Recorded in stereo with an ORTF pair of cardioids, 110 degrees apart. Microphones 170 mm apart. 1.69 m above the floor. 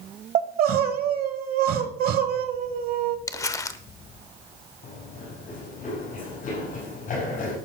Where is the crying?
60° right, 1.2 m.